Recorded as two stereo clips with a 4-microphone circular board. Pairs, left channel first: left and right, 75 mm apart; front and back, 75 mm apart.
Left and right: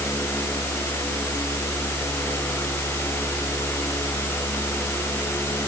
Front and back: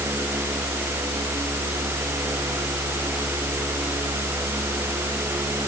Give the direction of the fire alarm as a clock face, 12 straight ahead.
No fire alarm in this recording.